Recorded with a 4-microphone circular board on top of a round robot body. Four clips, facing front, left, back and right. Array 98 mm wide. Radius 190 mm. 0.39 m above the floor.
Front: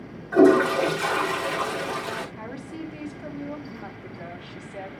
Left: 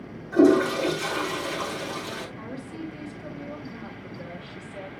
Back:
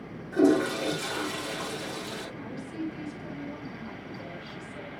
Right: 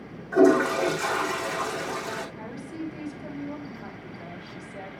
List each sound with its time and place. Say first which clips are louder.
0.3 s a toilet flushing: left 1 dB, front 6 dB; 25° right, 3.5 m
2.4 s a woman speaking: even, front 1 dB; 10° right, 3.5 m